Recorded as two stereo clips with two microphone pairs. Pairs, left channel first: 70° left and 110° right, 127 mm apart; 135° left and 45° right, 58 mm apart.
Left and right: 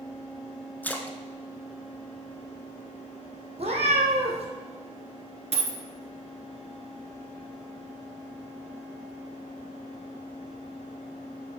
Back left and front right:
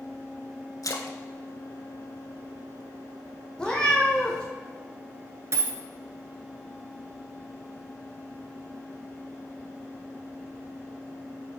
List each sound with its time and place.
0.8 s a splash: 145° left, 0.5 m
3.6 s a cat meowing: 145° right, 1.2 m
5.5 s a dropped coin: 80° right, 0.8 m